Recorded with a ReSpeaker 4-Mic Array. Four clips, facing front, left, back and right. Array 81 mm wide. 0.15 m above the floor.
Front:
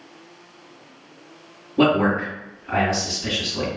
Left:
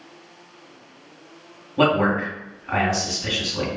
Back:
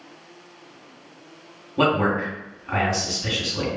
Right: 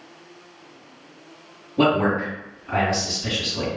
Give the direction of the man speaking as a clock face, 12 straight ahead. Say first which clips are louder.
Even, front 2 dB; 8 o'clock.